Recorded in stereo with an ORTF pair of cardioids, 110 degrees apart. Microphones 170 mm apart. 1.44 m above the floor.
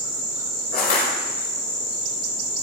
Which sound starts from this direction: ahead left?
Crushing, at 0.7 s.